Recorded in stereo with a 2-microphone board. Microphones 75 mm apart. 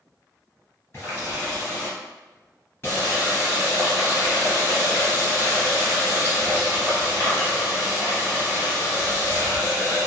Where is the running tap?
40° left (ahead or behind), 1.6 m.